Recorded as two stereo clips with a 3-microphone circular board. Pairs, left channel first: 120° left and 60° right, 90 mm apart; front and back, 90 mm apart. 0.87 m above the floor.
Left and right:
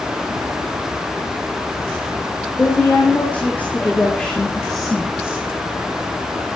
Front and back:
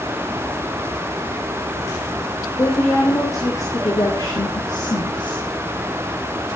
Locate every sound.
2.5 s a woman speaking: 55° left, 3 m; by 5.5 s 15° left, 1.3 m